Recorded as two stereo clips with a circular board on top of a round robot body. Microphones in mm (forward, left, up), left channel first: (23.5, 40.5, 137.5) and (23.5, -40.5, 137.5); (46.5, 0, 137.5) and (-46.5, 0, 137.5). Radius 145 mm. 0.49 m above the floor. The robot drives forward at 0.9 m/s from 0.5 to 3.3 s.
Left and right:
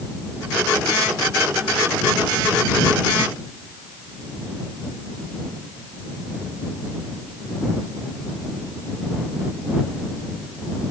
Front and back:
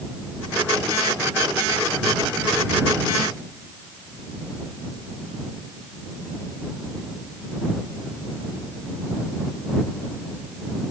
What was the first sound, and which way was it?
Only background noise.